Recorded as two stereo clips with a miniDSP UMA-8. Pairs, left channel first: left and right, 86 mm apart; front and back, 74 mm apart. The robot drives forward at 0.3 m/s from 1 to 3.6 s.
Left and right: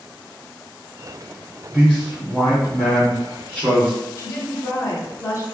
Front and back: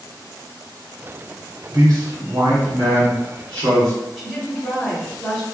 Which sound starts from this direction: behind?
A man speaking, at 1.7 s.